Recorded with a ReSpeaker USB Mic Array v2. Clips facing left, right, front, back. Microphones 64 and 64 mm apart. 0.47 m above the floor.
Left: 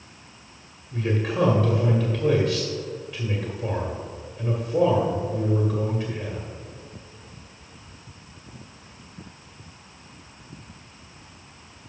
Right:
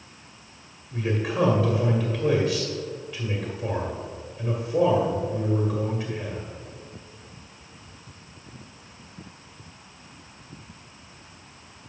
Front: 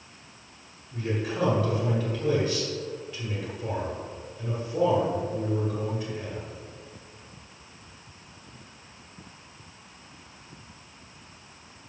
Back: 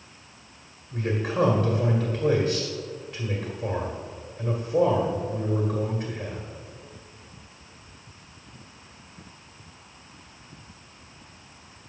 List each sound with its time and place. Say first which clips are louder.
0.9 s a man speaking: left 1 dB, back 3 dB; 175° left, 1.5 m